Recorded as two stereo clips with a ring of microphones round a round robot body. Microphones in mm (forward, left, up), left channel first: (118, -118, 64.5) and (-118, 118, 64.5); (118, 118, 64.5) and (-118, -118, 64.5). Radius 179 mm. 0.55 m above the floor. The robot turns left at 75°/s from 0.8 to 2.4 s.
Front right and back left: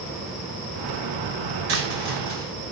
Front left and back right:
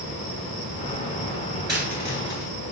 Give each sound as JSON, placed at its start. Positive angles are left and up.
{"t": 1.7, "sound": "a dropped coin", "azimuth_deg": 145, "distance_m": 2.5}